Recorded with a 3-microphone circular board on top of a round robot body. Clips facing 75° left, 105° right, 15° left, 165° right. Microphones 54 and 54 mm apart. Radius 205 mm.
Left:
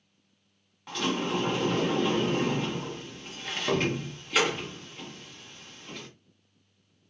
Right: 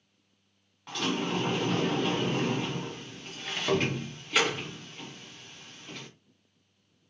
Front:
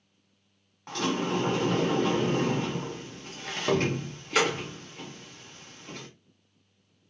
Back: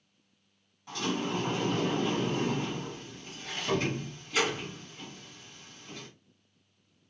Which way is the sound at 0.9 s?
15° right.